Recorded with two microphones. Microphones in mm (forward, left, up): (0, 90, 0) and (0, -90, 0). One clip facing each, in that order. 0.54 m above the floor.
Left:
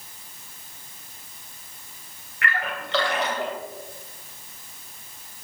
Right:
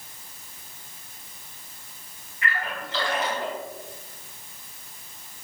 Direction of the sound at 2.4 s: 70° left (ahead or behind).